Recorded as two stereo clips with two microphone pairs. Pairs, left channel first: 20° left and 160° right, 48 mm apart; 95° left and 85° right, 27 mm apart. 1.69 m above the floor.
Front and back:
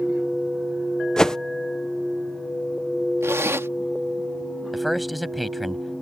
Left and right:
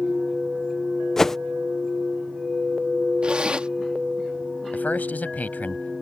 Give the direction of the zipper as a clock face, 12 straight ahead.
5 o'clock.